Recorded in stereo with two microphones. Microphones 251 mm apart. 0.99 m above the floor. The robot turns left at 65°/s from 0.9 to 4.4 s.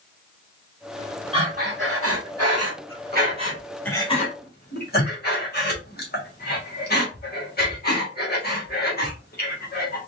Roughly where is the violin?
No violin in this recording.